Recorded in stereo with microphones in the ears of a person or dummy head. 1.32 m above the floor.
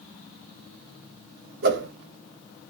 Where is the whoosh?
55° right (ahead or behind), 0.8 m.